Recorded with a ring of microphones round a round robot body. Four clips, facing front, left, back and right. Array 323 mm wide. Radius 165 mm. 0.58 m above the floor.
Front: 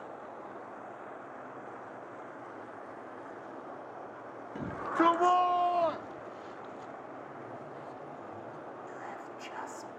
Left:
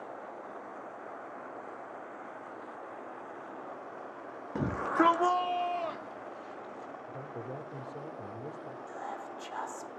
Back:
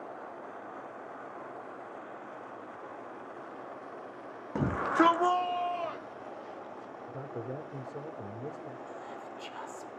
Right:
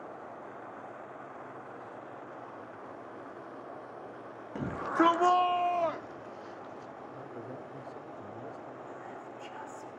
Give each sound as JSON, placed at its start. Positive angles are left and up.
{"t": 4.5, "sound": "a shout", "azimuth_deg": 155, "distance_m": 0.8}
{"t": 7.1, "sound": "a man speaking", "azimuth_deg": 160, "distance_m": 1.8}
{"t": 8.9, "sound": "whispering", "azimuth_deg": 80, "distance_m": 1.1}